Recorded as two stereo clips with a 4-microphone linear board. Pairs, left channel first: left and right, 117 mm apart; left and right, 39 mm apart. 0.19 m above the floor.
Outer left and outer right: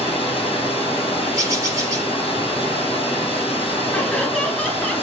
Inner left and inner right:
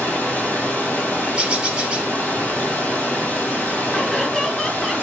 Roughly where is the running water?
Left.